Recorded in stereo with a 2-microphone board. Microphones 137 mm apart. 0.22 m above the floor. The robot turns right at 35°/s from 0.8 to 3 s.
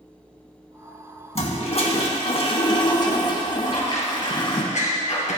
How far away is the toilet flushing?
About 1.9 m.